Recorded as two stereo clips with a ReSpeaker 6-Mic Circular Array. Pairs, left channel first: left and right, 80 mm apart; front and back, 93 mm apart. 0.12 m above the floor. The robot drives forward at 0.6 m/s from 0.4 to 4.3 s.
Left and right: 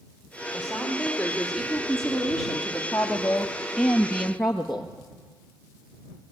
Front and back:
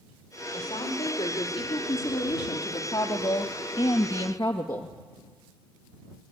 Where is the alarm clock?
I don't hear an alarm clock.